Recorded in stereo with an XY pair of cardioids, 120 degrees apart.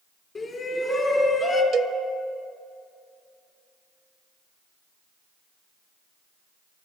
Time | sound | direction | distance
0.3 | a shout | 35° left | 3.5 m
1.7 | a cowbell | 50° right | 0.6 m